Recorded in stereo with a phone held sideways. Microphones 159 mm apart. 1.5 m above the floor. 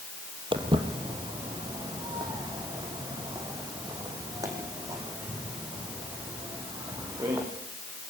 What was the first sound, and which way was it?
Footsteps, 30° right (ahead or behind).